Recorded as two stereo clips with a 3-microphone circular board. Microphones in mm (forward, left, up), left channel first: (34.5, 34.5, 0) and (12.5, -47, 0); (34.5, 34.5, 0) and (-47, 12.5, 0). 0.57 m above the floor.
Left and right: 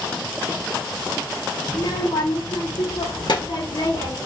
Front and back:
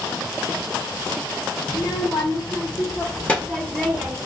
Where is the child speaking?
40° left, 1.5 m; by 4.2 s 120° left, 1.2 m.